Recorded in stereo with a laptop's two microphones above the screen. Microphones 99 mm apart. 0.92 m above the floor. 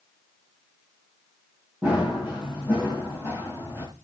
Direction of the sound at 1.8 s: 15° right (ahead or behind).